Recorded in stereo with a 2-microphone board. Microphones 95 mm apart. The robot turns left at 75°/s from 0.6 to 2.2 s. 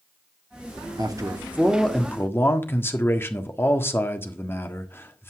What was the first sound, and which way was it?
A man speaking, 120° right.